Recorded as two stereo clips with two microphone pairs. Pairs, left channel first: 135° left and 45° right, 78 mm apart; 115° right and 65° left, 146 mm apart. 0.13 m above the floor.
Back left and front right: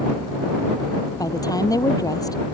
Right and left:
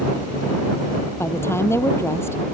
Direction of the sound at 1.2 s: 170° left.